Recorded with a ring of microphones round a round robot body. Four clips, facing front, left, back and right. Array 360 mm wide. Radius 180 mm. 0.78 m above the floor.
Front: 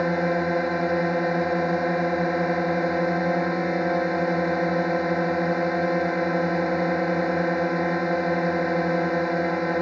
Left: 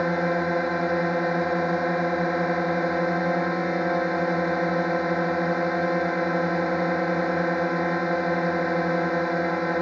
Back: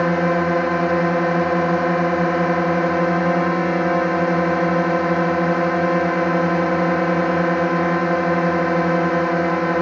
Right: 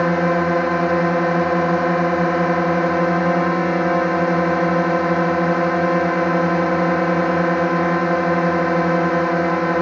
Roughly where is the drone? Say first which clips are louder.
Right 6 dB, back 5 dB; behind right.